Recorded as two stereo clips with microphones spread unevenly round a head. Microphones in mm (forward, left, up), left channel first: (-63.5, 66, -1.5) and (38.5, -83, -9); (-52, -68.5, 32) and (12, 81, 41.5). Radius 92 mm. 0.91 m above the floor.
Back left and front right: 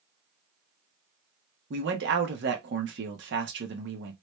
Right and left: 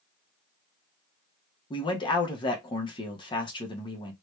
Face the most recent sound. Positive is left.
turn(degrees=-55)